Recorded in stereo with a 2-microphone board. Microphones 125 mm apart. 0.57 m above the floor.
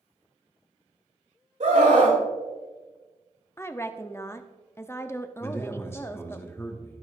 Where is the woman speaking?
20° left (ahead or behind), 0.6 m.